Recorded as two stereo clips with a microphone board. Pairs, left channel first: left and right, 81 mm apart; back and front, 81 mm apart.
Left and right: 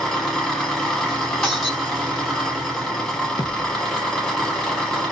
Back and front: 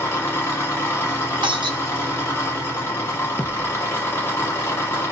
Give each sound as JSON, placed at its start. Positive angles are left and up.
{"t": 0.0, "sound": "an engine running", "azimuth_deg": 165, "distance_m": 1.1}
{"t": 1.4, "sound": "breaking glass", "azimuth_deg": 5, "distance_m": 1.0}
{"t": 3.4, "sound": "a thud", "azimuth_deg": 115, "distance_m": 0.5}